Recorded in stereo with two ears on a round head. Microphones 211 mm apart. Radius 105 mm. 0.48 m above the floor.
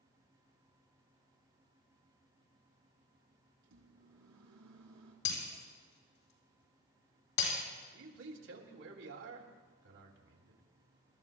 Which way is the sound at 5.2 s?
85° left.